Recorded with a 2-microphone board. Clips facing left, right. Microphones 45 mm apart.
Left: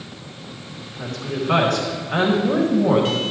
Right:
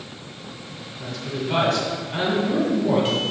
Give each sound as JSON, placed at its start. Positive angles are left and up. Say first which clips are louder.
{"t": 1.0, "sound": "a woman speaking", "louder": "left 3 dB", "side_deg": 60, "distance_m": 4.5}